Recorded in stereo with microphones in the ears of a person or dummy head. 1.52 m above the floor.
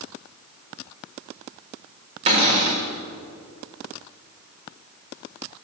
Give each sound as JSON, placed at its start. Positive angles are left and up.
{"t": 2.3, "sound": "a cupboard door", "side_deg": -30, "distance_m": 1.4}